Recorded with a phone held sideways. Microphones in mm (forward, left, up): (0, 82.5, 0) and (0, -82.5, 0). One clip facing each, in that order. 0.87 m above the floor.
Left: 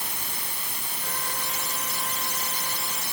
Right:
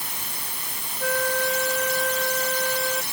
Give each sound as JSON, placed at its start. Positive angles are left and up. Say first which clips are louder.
{"t": 1.0, "sound": "a flute", "louder": "right 13 dB", "side_deg": -80}